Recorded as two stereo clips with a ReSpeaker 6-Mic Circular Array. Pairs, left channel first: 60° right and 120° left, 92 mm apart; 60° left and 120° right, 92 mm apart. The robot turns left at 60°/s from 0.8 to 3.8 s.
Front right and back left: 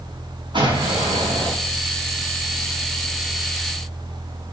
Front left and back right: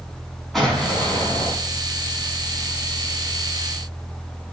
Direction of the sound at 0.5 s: 150° left.